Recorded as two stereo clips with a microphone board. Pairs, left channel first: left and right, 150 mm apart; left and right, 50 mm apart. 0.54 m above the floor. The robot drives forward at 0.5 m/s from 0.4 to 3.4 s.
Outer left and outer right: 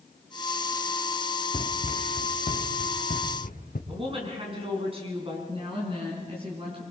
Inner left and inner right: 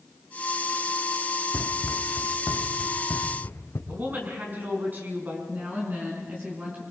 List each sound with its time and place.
1.5 s running footsteps: 40° left (ahead or behind), 1.7 m; by 3.8 s 75° left (ahead or behind), 4 m
3.9 s a woman speaking: 40° right (ahead or behind), 5.5 m
5.5 s a woman speaking: 35° right (ahead or behind), 5 m